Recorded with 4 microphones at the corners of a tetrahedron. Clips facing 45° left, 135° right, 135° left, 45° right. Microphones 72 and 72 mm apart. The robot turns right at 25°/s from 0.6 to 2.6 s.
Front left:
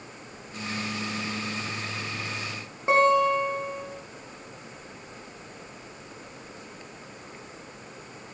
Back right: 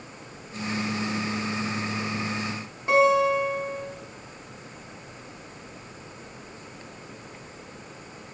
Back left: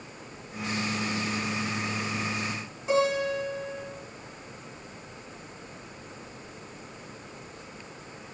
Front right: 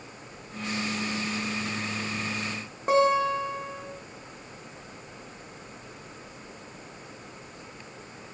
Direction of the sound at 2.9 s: 15° right.